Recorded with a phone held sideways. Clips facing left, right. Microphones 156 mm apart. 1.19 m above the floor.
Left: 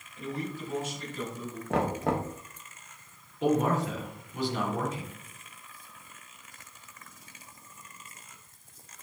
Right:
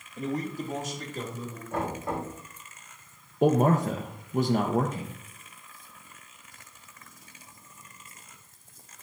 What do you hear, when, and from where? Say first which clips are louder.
0.2 s a man speaking: right 4 dB; 45° right (ahead or behind), 1.4 m; by 1.6 s 40° right (ahead or behind), 3 m
1.7 s knocking: left 4 dB; 90° left, 1.1 m
3.4 s a man speaking: right 4 dB; 50° right (ahead or behind), 0.8 m